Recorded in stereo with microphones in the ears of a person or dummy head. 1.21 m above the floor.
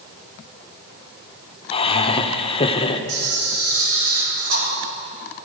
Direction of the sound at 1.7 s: 25° left (ahead or behind).